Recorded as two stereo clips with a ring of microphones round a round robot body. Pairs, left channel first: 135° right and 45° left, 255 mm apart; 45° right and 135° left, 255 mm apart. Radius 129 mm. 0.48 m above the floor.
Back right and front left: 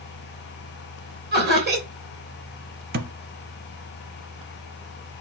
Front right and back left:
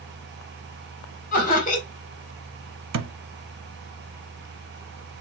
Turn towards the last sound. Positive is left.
turn(degrees=105)